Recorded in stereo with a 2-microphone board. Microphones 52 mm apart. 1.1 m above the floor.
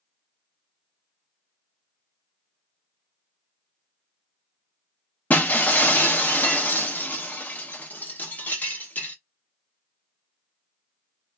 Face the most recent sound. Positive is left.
turn(degrees=30)  # may be behind; listen again after turning